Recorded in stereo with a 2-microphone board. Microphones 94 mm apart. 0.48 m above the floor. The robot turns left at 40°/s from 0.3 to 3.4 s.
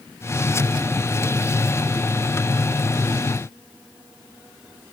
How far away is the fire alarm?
No fire alarm in this recording.